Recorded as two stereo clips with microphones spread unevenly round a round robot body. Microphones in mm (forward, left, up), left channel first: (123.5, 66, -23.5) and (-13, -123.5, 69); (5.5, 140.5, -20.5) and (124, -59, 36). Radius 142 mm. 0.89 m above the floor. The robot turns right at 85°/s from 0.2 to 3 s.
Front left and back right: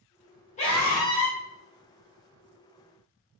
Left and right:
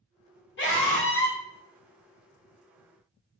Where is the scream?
100° left, 1.6 m; by 1.4 s 170° left, 1.6 m.